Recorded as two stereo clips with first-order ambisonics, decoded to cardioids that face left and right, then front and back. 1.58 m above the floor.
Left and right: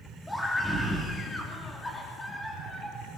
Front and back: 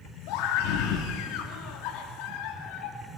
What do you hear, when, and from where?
0.3 s a scream: 10° left, 3 m